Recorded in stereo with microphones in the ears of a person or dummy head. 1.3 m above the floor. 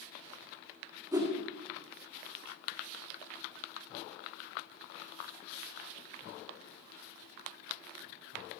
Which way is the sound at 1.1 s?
20° right (ahead or behind).